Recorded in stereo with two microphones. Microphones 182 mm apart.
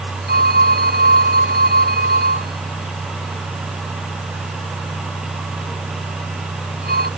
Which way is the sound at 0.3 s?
60° right (ahead or behind).